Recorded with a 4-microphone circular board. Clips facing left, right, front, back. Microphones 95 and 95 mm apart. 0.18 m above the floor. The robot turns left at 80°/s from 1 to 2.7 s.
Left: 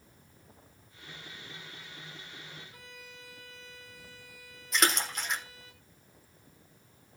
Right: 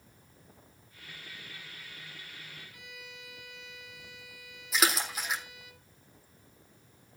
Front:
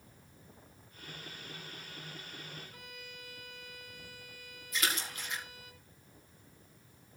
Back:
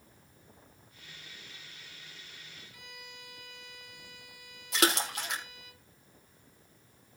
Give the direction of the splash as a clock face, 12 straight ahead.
6 o'clock.